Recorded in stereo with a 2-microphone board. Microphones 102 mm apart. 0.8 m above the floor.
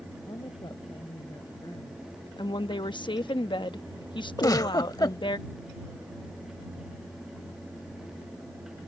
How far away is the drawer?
I don't hear a drawer.